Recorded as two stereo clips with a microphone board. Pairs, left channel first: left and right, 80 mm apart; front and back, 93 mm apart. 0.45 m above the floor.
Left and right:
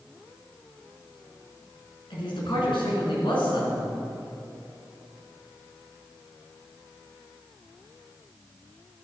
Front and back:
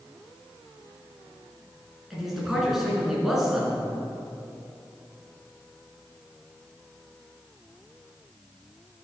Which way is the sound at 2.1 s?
95° left.